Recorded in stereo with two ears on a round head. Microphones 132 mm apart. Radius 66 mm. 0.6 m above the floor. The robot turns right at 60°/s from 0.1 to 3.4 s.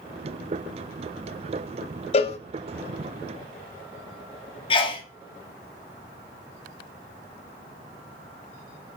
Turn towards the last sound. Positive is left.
turn(degrees=35)  # may be behind; listen again after turning